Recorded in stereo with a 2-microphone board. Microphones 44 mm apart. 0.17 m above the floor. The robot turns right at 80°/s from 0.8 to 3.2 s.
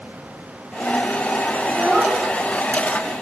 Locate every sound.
1.7 s a child speaking: 10° right (ahead or behind), 0.7 m; by 2.2 s 15° right (ahead or behind), 0.7 m